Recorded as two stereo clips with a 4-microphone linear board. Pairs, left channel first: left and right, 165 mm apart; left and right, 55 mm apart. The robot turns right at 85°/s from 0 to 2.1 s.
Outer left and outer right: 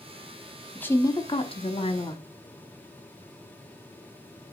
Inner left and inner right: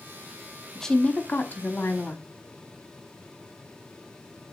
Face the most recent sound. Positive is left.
turn(degrees=125)